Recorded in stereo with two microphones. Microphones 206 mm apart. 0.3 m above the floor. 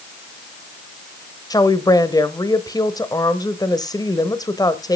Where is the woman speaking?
20° left (ahead or behind), 1.0 m.